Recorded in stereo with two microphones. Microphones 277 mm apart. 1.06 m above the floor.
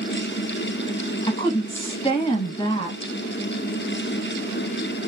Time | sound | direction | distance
1.2 | a woman speaking | 20° left (ahead or behind) | 0.9 m